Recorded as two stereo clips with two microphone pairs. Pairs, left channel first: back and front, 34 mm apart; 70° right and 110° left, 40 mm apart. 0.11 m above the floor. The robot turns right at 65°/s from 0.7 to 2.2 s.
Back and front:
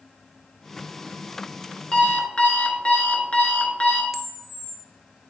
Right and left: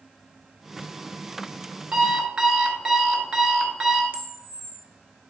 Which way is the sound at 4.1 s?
85° left.